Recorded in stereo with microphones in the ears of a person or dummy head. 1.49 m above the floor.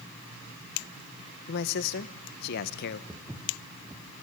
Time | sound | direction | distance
1.5 | a man speaking | 55° left (ahead or behind) | 0.9 m
3.1 | footsteps | 10° right (ahead or behind) | 2.5 m